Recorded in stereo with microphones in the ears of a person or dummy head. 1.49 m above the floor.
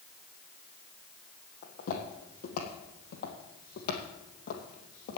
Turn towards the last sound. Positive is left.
turn(degrees=50)  # may be behind; listen again after turning